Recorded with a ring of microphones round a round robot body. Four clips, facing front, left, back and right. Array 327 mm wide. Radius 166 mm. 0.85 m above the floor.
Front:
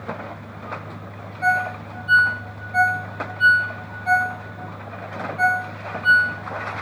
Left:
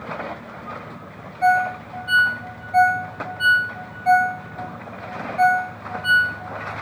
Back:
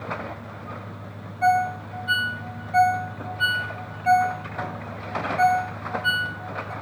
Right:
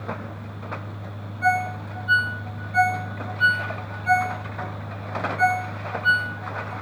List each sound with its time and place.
1.4 s a ringtone: 120° left, 1.9 m